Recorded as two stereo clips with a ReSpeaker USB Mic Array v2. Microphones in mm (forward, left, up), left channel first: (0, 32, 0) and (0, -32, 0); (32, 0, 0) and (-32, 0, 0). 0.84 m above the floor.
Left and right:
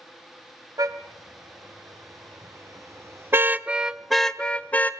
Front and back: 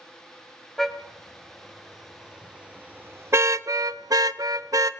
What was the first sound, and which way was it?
A car horn, 85° right.